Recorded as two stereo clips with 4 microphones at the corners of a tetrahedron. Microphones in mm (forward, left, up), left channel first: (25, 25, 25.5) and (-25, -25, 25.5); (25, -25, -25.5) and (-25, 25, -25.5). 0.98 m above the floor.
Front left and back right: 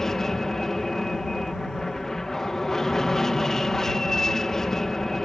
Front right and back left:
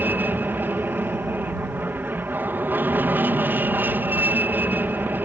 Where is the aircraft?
120° left.